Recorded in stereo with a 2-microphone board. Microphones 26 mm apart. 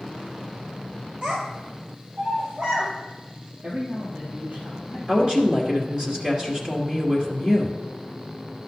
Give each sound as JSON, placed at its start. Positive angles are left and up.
{"t": 1.2, "sound": "a child speaking", "side_deg": -40, "distance_m": 1.8}
{"t": 3.6, "sound": "a man speaking", "side_deg": -70, "distance_m": 3.5}
{"t": 5.1, "sound": "a woman speaking", "side_deg": -35, "distance_m": 2.5}